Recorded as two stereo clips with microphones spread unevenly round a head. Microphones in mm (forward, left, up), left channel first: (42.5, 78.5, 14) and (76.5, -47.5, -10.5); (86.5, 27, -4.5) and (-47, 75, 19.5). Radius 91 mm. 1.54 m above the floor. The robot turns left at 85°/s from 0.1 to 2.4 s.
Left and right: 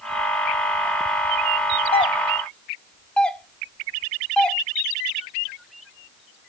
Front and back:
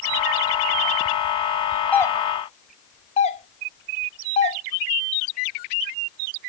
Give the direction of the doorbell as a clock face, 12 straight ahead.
10 o'clock.